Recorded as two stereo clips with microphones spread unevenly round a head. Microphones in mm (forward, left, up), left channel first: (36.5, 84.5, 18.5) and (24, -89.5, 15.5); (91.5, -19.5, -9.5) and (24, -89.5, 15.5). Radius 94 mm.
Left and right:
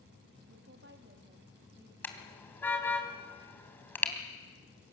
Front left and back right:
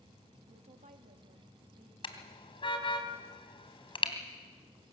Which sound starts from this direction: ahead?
A car horn, at 2.0 s.